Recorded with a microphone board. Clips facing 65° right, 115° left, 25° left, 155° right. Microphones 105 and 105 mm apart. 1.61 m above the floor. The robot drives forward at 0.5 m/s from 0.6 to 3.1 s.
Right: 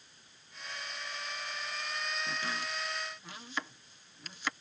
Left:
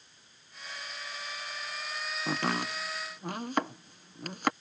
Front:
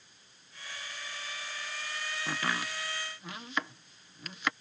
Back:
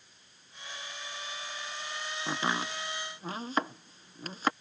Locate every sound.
2.3 s chopping: 130° left; by 4.5 s 150° left